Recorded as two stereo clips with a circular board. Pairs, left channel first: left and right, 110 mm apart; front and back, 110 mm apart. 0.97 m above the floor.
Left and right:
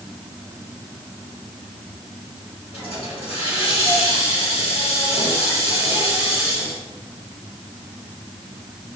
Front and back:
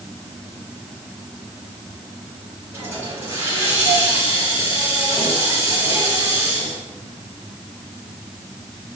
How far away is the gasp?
No gasp in this recording.